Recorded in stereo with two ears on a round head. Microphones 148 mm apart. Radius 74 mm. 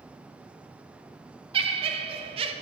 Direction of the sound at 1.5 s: 35° right (ahead or behind).